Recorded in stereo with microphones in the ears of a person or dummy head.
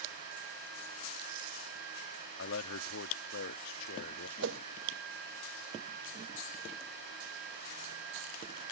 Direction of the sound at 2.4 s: 75° left (ahead or behind).